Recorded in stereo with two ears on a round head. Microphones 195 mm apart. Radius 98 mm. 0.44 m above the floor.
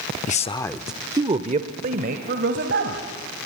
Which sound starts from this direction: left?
A man speaking, at 0.3 s.